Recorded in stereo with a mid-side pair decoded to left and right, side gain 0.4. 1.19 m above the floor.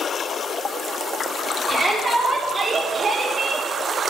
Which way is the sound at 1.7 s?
35° right.